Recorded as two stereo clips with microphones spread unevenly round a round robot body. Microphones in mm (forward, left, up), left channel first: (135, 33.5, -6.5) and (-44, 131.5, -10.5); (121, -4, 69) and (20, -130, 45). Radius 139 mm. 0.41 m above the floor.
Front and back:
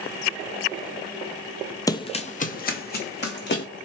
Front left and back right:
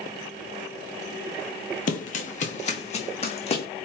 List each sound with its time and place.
1.9 s running footsteps: 40° left, 0.6 m; by 3.7 s 5° left, 1.5 m